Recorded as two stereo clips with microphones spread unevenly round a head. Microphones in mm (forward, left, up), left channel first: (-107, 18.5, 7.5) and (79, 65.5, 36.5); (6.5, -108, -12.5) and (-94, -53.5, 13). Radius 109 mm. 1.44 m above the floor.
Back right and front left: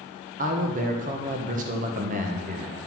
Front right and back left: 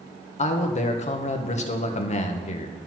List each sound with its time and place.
0.4 s a man speaking: 45° right, 1.5 m